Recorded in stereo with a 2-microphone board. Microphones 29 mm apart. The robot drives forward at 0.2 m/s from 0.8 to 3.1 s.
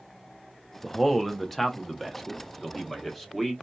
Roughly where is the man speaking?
Centre.